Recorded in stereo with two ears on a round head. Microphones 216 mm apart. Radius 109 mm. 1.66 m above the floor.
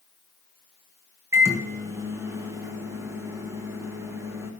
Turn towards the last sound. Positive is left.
turn(degrees=-10)  # may be behind; listen again after turning